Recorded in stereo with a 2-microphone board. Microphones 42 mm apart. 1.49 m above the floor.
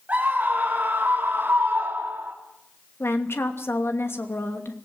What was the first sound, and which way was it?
A scream, 40° right (ahead or behind).